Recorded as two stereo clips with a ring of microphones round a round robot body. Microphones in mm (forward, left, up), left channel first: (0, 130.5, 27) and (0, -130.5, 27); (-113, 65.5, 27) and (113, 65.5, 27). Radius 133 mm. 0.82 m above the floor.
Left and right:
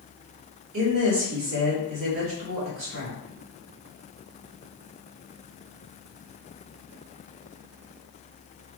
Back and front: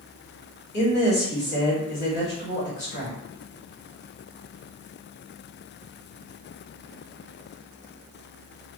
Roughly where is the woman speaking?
Behind right.